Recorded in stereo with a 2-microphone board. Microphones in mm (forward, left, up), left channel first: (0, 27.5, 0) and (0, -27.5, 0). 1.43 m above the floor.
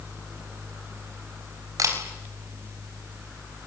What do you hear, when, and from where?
1.8 s a camera shutter: 75° right (ahead or behind), 4.5 m